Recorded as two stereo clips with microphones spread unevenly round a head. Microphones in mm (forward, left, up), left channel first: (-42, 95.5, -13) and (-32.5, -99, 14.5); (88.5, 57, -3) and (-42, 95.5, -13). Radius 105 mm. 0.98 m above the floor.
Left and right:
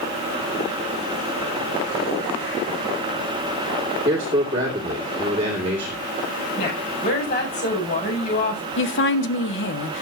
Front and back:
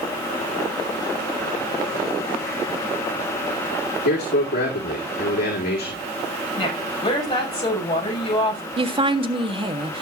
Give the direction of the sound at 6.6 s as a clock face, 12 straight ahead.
11 o'clock.